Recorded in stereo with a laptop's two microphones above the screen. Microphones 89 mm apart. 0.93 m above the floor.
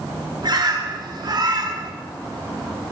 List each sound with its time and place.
0.4 s a bird: 50° right (ahead or behind), 0.6 m